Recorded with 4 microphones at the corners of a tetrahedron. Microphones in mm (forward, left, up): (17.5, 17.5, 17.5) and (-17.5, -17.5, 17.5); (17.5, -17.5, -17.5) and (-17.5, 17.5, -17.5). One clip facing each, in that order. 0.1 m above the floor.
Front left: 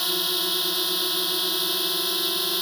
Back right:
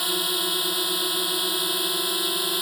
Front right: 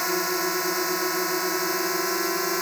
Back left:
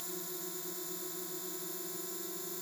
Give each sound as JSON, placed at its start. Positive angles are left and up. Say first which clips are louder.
{"t": 0.0, "sound": "a drone", "louder": "back right 1 dB, front right 20 dB", "azimuth_deg": -50}